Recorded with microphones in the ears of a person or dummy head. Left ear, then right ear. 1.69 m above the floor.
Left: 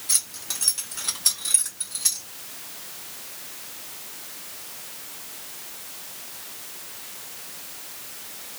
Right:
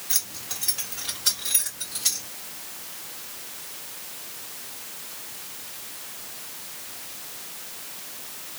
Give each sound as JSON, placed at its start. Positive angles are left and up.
{"t": 0.1, "sound": "keys jangling", "side_deg": 55, "distance_m": 1.9}